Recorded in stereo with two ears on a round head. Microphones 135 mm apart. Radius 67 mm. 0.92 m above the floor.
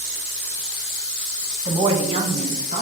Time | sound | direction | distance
1.6 | a woman speaking | 25° right (ahead or behind) | 1.0 m